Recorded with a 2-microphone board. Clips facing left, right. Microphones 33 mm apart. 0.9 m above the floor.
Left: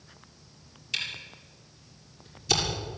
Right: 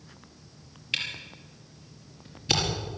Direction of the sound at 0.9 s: 35° right (ahead or behind).